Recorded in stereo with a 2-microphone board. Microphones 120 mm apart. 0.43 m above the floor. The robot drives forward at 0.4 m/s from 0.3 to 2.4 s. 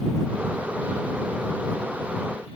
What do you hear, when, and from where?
Only background noise.